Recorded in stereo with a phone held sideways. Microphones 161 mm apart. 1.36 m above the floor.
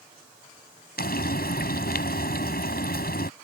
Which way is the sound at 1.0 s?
75° left (ahead or behind).